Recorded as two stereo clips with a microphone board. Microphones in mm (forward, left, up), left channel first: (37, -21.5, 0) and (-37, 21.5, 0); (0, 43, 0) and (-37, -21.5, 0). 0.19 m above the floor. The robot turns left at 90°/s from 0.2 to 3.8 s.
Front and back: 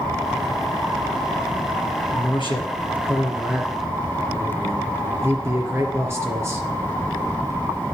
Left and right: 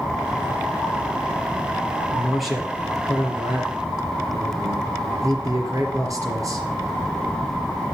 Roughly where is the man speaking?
Ahead.